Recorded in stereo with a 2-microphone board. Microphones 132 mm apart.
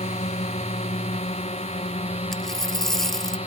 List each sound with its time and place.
0.0 s a drone: 55° left (ahead or behind); by 3.5 s 50° left (ahead or behind)
2.3 s a dropped coin: 5° left (ahead or behind)